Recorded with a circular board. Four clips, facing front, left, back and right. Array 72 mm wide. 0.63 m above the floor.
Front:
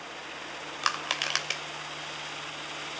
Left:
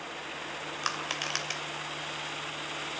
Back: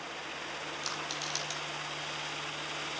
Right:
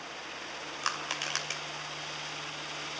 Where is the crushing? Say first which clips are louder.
Even, front 12 dB; 5° left, 3 m.